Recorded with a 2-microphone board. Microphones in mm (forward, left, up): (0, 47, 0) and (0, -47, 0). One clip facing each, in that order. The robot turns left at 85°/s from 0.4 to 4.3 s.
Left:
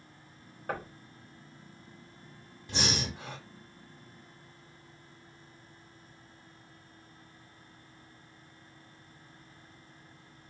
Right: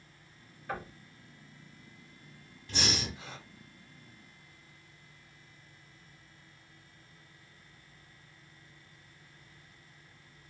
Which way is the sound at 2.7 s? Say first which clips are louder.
Left 2 dB; 155° left.